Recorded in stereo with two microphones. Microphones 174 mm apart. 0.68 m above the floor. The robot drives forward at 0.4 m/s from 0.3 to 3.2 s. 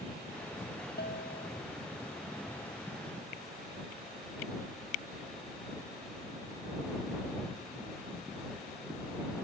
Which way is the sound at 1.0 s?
70° left (ahead or behind).